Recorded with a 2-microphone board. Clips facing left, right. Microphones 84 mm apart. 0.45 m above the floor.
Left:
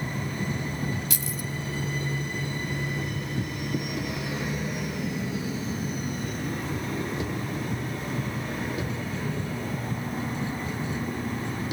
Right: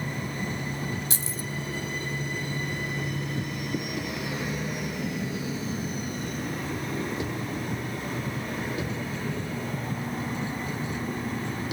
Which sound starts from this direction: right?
Keys jangling, at 1.1 s.